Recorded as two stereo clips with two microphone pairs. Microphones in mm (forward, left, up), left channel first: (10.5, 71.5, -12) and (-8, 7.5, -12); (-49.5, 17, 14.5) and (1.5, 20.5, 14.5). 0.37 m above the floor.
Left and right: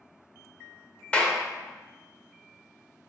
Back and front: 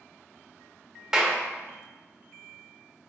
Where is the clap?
70° left, 0.6 m.